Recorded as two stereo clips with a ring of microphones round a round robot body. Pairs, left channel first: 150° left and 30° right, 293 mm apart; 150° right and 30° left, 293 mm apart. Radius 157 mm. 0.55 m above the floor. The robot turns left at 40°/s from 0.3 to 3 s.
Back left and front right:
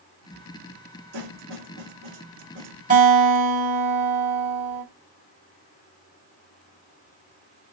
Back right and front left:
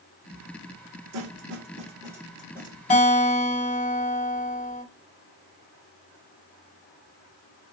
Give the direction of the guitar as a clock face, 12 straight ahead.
3 o'clock.